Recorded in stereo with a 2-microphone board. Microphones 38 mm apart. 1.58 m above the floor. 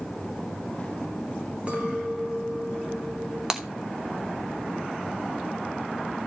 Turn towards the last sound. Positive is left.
turn(degrees=-15)  # may be behind; listen again after turning